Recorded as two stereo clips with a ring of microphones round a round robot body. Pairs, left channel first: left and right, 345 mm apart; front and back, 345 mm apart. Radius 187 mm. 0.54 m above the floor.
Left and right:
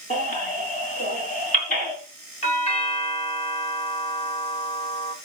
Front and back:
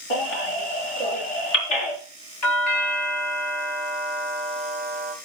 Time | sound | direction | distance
0.1 | a baby crying | 20° left | 4.5 m
2.4 | a doorbell | 25° left | 1.9 m